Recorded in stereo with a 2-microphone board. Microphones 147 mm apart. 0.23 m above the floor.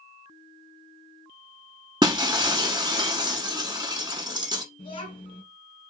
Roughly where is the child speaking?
Left.